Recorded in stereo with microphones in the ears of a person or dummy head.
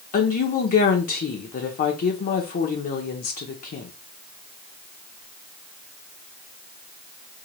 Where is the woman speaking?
45° left (ahead or behind), 0.6 m.